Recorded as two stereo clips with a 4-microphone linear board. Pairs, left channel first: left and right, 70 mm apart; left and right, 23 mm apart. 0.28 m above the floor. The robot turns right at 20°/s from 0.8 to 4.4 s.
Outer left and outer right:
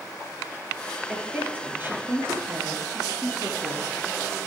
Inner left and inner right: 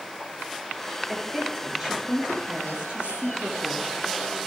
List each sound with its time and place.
1.1 s a woman speaking: 165° right, 5 m; by 4.2 s 105° right, 5 m